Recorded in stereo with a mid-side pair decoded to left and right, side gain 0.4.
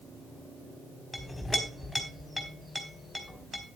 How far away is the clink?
About 3.5 m.